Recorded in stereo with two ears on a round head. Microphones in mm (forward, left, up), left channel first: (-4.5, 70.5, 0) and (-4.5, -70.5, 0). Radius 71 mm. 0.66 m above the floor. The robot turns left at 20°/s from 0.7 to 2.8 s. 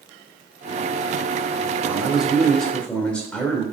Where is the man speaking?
10° right (ahead or behind), 2 m; by 3.6 s 5° left (ahead or behind), 2 m.